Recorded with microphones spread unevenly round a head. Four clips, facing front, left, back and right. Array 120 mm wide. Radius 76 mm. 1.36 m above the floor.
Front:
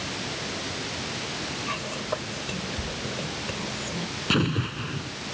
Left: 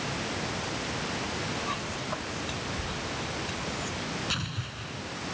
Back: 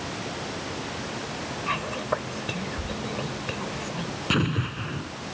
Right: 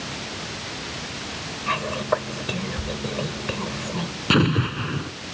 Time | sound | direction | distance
1.7 | whispering | 95° right | ?
4.3 | an explosion | 85° right | ?